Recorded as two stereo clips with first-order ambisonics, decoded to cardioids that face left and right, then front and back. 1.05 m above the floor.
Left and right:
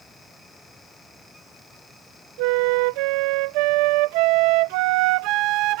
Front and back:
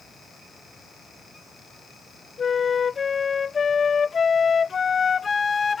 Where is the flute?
70° right.